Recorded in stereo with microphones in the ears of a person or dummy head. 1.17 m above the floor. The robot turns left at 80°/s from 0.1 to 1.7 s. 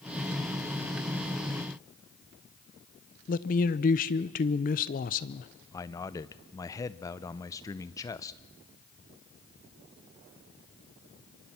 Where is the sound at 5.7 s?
20° left (ahead or behind), 0.6 m.